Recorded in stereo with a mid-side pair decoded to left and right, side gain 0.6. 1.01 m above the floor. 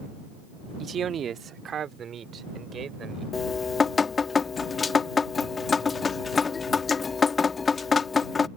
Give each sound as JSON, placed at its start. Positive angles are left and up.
{"t": 0.8, "sound": "a man speaking", "azimuth_deg": -40}
{"t": 3.3, "sound": "dripping", "azimuth_deg": 30}